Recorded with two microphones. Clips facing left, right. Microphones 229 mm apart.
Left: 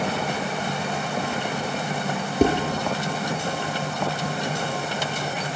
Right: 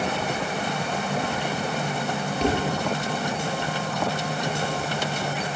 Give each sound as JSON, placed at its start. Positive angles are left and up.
{"t": 2.4, "sound": "dishes clattering", "side_deg": 55, "distance_m": 3.0}